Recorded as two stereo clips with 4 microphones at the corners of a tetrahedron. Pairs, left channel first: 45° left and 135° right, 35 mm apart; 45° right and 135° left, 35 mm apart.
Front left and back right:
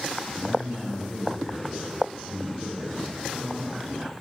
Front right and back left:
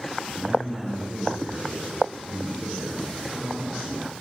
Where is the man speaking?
120° left, 1.3 m; by 3.8 s 125° left, 3 m.